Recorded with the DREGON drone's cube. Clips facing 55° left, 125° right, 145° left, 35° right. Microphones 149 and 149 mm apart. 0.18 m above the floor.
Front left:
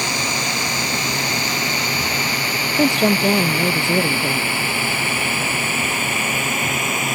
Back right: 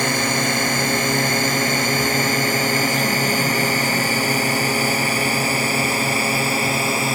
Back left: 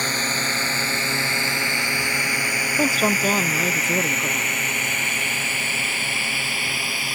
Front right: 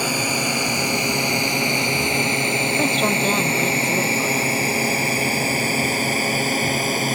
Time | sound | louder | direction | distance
0.0 | a drone | back right 4 dB, front right 5 dB | 110° right | ?
2.8 | a woman speaking | front left 5 dB, back left 2 dB | 65° left | ?